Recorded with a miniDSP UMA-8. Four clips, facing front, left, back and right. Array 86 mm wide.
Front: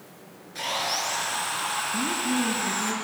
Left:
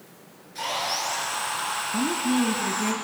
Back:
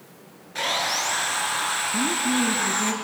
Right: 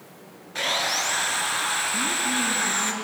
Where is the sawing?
120° right, 3.5 m.